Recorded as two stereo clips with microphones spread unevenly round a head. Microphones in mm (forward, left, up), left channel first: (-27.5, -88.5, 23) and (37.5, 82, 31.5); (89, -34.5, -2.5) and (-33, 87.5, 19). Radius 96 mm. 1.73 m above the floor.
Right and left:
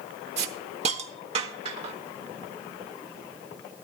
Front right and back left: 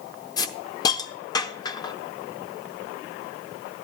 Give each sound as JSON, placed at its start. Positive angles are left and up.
{"t": 0.4, "sound": "a hiss", "azimuth_deg": 25, "distance_m": 0.8}